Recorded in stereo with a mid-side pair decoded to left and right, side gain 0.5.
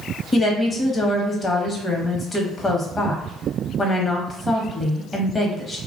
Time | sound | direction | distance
0.3 | a woman speaking | 30° left | 1.1 m